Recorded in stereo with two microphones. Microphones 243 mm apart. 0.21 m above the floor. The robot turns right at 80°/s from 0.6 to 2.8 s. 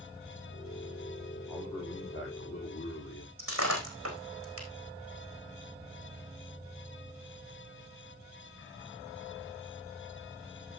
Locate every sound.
1.5 s a man speaking: 5° right, 6.5 m; by 3.3 s 100° left, 6.5 m
3.4 s breaking glass: 60° right (ahead or behind), 4 m